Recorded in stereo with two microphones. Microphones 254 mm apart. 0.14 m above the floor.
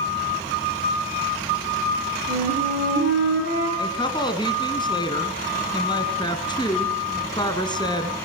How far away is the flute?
About 8 m.